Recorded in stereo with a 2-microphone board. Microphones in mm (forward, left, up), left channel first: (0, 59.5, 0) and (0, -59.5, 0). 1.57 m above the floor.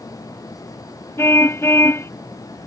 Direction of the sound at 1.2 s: 20° left (ahead or behind).